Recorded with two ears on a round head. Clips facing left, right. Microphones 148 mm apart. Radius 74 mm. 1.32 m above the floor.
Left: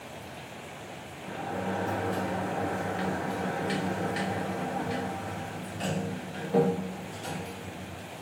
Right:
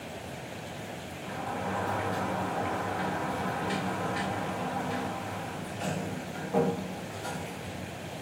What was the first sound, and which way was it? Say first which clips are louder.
A sliding door: left 1 dB; 30° left (ahead or behind).